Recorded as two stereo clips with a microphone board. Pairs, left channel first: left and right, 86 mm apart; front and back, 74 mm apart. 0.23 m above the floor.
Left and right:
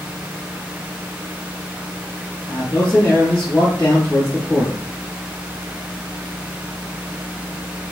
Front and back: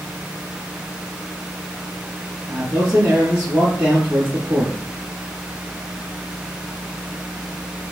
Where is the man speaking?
125° left, 1.0 m.